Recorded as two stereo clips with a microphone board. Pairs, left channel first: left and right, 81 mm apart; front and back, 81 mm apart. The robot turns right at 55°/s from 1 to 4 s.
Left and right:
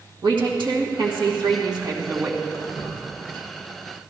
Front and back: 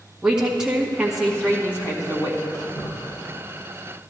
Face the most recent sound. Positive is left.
turn(degrees=120)